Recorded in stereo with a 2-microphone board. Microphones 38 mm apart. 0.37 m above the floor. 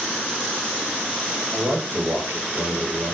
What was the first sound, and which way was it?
A man speaking, 75° right (ahead or behind).